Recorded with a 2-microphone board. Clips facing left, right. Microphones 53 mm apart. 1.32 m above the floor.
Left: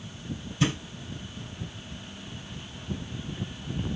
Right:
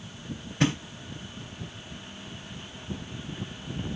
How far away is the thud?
About 2 m.